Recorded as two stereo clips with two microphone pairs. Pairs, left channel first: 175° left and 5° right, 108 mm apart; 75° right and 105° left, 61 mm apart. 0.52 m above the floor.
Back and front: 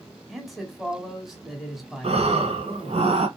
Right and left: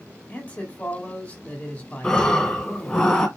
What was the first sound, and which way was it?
A man speaking, 100° right.